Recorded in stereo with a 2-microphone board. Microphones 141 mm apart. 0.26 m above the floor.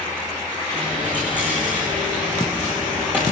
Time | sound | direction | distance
0.7 | a dropped coin | 10° right (ahead or behind) | 9.5 m